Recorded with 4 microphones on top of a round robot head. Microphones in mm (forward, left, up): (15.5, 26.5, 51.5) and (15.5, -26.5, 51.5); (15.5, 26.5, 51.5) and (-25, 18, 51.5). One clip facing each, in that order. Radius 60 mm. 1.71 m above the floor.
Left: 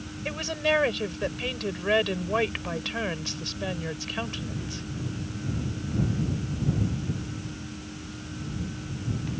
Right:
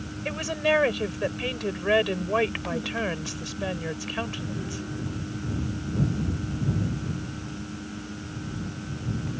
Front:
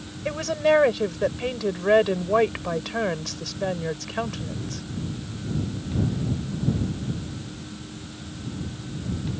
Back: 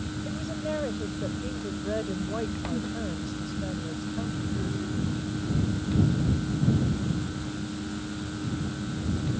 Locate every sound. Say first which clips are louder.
0.2 s a woman speaking: right 2 dB, front 13 dB; 10° right